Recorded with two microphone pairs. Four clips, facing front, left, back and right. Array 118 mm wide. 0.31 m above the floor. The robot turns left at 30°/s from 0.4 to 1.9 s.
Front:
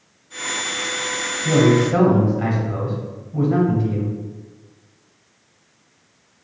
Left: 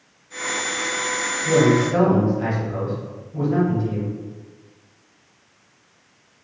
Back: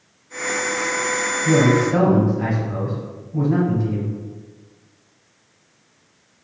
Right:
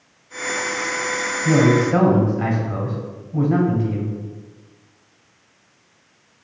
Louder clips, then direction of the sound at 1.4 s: Right 1 dB, front 1 dB; 50° right.